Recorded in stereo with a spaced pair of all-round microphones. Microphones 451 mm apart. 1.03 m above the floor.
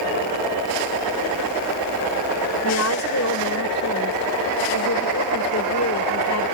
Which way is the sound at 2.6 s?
35° left (ahead or behind).